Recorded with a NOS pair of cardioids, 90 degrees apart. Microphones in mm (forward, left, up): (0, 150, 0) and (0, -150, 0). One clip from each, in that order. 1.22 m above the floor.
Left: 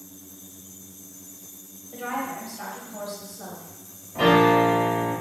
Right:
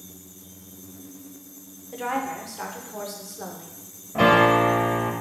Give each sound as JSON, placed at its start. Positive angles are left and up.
{"t": 1.9, "sound": "a woman speaking", "azimuth_deg": -30, "distance_m": 0.7}
{"t": 4.2, "sound": "a piano", "azimuth_deg": -55, "distance_m": 0.9}